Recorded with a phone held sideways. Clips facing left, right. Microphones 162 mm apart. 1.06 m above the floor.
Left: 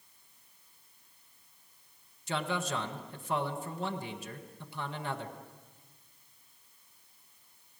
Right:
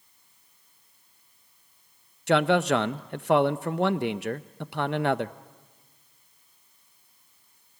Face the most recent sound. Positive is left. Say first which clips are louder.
# right 13 dB
turn(degrees=-75)  # may be behind; listen again after turning